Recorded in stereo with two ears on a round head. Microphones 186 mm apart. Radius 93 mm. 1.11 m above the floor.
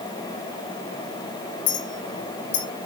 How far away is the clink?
About 3 m.